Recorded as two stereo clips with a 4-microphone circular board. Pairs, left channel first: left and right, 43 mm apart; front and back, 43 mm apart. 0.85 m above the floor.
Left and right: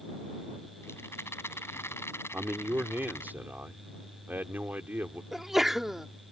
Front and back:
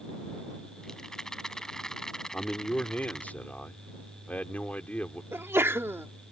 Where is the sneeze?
175° right.